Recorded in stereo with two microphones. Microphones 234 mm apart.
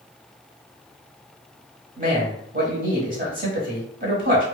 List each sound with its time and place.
2.0 s a man speaking: 35° right (ahead or behind), 1.1 m